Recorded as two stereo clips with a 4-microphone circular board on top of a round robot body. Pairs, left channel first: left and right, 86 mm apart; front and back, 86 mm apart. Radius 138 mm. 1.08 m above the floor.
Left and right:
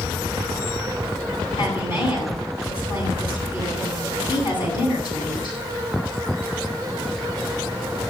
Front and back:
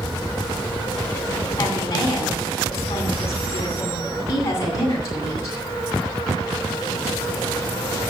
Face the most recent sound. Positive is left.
turn(degrees=55)